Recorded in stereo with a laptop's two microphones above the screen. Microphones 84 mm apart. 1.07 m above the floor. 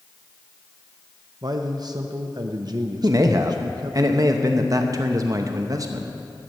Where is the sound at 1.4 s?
55° right (ahead or behind), 0.5 m.